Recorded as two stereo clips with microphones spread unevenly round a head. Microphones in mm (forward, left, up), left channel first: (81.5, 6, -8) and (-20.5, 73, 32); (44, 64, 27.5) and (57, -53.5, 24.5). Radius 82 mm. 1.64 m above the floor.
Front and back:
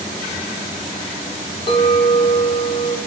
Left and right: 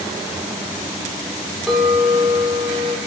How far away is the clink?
About 0.5 m.